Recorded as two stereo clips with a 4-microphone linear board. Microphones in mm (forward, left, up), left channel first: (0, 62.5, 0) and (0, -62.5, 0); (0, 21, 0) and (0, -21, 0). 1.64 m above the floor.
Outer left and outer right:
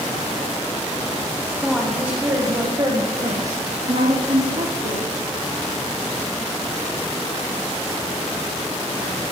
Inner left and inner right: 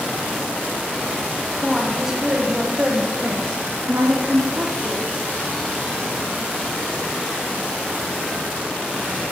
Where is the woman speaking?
Centre (ahead or behind), 1.6 m; by 5.1 s 80° right, 2.5 m.